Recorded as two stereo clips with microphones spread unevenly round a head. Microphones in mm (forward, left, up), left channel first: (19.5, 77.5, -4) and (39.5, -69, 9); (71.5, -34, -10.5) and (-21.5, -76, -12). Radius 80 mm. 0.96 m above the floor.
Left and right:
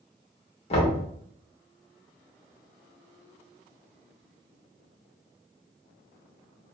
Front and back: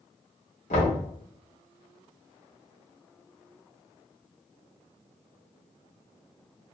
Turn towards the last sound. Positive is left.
turn(degrees=55)